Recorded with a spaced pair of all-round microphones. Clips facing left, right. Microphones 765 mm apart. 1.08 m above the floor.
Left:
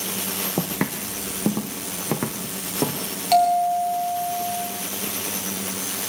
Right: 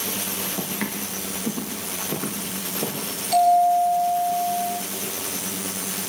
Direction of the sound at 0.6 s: 70° left (ahead or behind).